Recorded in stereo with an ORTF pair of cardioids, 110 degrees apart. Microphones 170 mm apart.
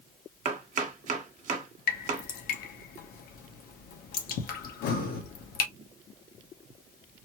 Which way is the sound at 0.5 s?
50° right.